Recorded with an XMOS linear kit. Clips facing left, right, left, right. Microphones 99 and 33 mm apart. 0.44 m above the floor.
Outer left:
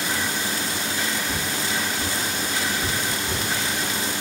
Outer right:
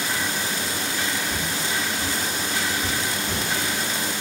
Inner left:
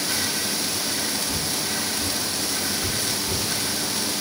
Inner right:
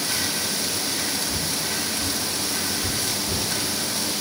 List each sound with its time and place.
1.3 s footsteps: 85° left, 4 m; by 3.4 s 70° left (ahead or behind), 5.5 m